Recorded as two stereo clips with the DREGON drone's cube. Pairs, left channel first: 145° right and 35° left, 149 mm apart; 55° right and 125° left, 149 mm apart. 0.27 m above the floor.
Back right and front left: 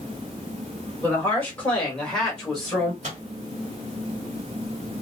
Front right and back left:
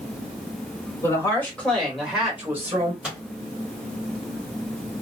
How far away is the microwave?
About 1.8 m.